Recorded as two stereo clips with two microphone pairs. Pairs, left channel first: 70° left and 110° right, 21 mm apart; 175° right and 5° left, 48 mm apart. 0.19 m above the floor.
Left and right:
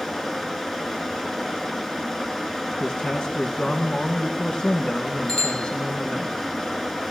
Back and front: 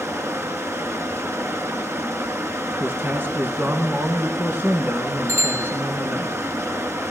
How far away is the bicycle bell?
About 4 m.